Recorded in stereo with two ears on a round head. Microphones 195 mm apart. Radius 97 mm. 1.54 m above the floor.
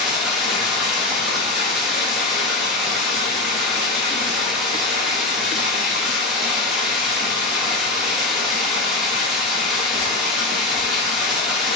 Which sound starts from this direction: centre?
Running water, at 0.0 s.